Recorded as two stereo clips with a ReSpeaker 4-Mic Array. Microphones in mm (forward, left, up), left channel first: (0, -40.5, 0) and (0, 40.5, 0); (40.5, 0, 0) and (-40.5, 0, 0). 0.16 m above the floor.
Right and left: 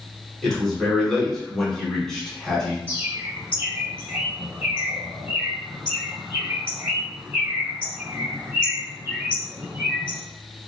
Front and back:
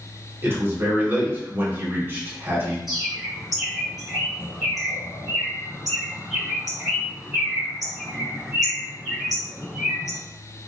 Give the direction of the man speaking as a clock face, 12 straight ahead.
6 o'clock.